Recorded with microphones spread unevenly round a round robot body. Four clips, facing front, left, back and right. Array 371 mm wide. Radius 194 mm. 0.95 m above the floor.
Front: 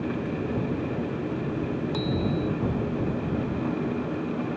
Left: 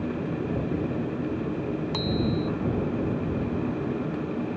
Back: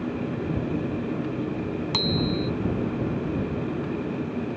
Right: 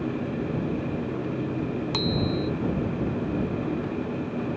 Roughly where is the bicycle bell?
Behind.